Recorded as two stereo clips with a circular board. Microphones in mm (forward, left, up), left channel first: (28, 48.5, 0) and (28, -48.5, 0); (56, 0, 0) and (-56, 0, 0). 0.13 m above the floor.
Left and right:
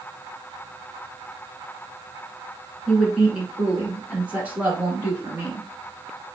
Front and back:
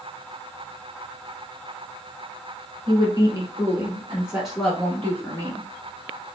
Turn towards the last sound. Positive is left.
turn(degrees=-40)